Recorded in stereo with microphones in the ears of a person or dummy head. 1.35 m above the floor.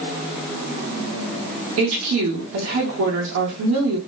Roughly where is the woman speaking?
Right.